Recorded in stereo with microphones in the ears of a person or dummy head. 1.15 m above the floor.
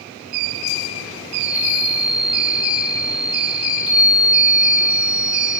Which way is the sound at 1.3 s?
10° right (ahead or behind).